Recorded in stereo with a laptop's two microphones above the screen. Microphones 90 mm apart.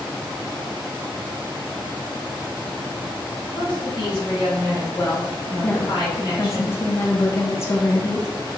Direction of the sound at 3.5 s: 60° left (ahead or behind).